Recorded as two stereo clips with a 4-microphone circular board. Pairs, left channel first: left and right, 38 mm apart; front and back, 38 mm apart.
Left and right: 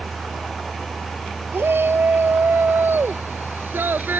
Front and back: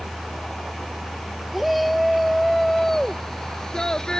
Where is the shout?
90° right; by 4.2 s 65° right.